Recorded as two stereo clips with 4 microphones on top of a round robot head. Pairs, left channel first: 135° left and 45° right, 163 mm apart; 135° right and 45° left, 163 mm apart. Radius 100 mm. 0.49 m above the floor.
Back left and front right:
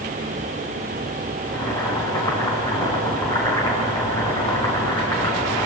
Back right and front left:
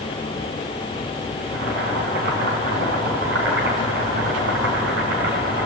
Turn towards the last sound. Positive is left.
turn(degrees=65)